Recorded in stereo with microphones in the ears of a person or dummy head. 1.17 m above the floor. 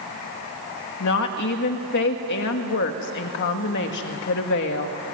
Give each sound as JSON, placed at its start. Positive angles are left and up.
{"t": 1.0, "sound": "a woman speaking", "side_deg": 60, "distance_m": 2.0}